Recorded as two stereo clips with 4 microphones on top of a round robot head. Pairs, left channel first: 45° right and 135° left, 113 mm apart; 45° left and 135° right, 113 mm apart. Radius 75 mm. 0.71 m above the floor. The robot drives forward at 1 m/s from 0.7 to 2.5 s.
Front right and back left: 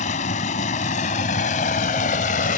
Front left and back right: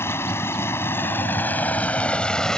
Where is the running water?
25° right; by 2.6 s 40° right.